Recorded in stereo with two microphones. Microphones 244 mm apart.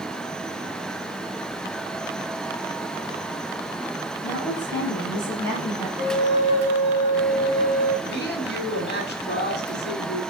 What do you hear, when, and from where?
4.2 s a woman speaking: 5° left (ahead or behind), 5 m
6.0 s a flute: 15° right (ahead or behind), 5 m
8.1 s a woman speaking: 40° left (ahead or behind), 2.0 m